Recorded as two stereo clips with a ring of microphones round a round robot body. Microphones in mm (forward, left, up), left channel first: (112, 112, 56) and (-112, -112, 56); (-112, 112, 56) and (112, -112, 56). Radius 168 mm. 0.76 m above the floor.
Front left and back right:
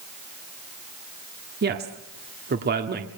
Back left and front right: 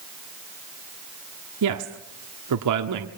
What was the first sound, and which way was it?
A woman speaking, 75° right.